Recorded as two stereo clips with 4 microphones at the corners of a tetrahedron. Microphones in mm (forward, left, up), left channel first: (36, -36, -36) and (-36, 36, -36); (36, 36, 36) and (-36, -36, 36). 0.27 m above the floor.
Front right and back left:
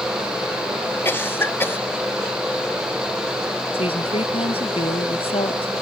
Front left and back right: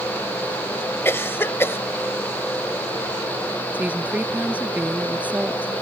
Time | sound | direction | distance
1.1 | a cough | straight ahead | ?
3.7 | a woman speaking | 60° right | ?